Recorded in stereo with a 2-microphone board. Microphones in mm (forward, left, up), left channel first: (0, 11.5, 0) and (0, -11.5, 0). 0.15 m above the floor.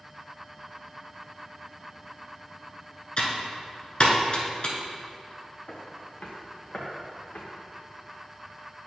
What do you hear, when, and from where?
3.2 s typing on a keyboard: 50° left (ahead or behind), 1.3 m
5.7 s footsteps: 80° left, 1.7 m; by 7.4 s 70° left (ahead or behind), 3 m